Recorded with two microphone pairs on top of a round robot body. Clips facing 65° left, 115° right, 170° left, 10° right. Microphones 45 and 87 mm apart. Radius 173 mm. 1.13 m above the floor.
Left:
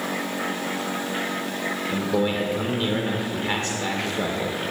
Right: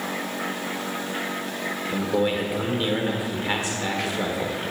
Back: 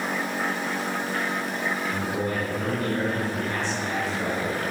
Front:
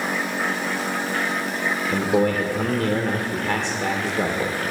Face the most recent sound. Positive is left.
turn(degrees=-15)